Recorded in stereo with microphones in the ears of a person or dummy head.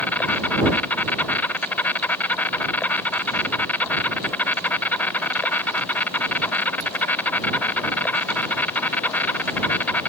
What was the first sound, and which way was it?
An insect, 10° left (ahead or behind).